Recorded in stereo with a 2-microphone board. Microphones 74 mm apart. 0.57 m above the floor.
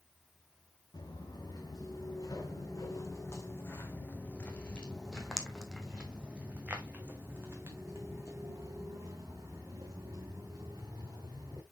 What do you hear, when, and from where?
0.9 s footsteps: 60° left (ahead or behind), 2.5 m; by 11.6 s 60° right (ahead or behind), 4 m